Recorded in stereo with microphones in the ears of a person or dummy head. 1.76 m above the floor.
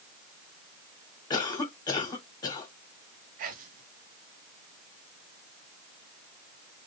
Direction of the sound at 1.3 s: 25° left (ahead or behind).